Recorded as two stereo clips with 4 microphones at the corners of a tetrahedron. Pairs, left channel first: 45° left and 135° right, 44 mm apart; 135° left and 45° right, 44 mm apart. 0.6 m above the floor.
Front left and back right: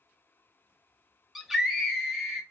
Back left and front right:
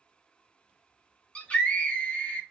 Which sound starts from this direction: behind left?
A scream, at 1.4 s.